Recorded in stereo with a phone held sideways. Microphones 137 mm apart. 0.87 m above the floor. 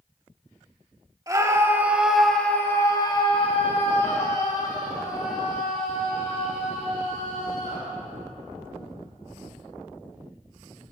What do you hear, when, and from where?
1.3 s a scream: 25° right (ahead or behind), 1.9 m; by 7.9 s 85° left, 5 m